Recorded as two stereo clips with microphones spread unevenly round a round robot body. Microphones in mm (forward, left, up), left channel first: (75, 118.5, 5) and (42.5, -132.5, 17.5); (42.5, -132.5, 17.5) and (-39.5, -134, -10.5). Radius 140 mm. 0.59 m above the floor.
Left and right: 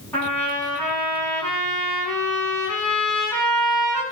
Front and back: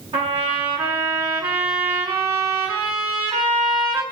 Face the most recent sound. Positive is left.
turn(degrees=165)